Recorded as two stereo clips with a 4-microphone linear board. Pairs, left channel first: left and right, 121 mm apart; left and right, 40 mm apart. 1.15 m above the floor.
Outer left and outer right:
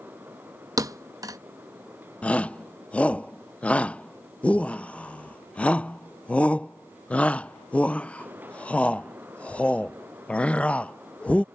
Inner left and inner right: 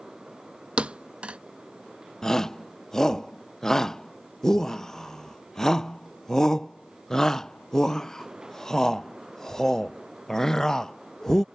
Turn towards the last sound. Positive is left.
turn(degrees=10)  # may be behind; listen again after turning